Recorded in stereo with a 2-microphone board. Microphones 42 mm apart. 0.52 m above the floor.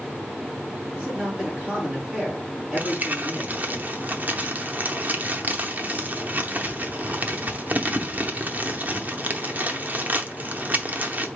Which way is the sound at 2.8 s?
40° right (ahead or behind).